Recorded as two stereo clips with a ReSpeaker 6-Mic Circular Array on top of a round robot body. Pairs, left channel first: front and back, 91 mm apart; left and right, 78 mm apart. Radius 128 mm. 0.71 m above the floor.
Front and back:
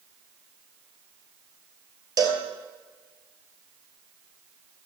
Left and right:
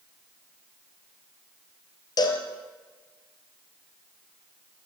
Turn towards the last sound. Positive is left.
turn(degrees=130)